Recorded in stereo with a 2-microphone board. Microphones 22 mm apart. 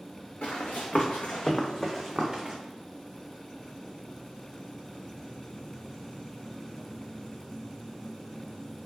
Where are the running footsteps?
85° left, 1.1 m; by 2.6 s 20° right (ahead or behind), 0.8 m.